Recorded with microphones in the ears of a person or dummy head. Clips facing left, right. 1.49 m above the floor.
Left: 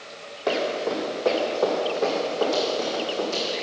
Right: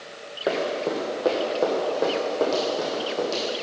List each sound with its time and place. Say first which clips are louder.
0.5 s running footsteps: even; 25° right (ahead or behind), 3.5 m; by 3.4 s 55° right (ahead or behind), 4.5 m